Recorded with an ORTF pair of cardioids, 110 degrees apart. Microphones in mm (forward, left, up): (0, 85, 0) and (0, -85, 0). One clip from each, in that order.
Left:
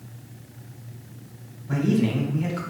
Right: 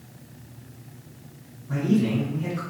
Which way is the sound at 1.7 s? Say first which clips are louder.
Left 1 dB; 55° left.